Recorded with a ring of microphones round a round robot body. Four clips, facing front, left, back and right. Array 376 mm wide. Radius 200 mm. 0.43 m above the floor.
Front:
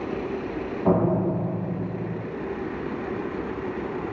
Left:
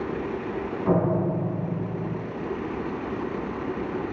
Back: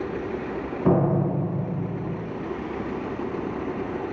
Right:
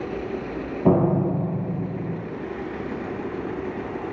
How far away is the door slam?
About 8 m.